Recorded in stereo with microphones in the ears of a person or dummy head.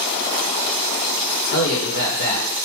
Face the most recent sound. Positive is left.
turn(degrees=60)  # may be behind; listen again after turning